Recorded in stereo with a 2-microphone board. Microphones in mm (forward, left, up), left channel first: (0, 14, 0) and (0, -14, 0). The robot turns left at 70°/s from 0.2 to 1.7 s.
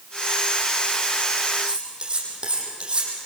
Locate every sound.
1.6 s cutlery clinking: 25° right (ahead or behind), 6 m; by 3.1 s 35° right (ahead or behind), 6 m